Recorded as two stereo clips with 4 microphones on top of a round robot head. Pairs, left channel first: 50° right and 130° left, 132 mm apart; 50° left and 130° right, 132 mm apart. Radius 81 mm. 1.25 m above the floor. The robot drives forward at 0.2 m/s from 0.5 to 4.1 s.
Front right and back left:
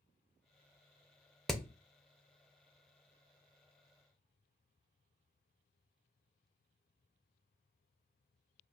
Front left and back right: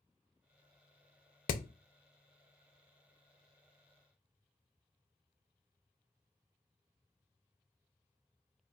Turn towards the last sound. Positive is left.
turn(degrees=115)